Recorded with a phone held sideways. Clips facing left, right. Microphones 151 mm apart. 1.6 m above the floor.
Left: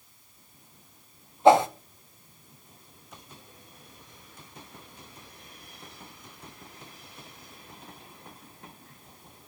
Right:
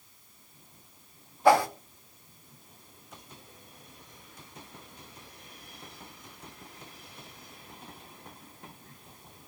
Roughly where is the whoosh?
Left.